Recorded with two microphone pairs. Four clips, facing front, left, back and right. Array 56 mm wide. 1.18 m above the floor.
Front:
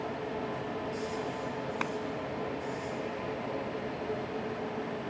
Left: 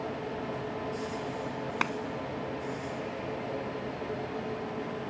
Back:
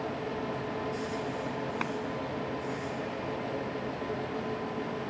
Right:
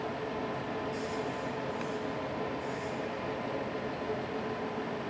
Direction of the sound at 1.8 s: 85° left.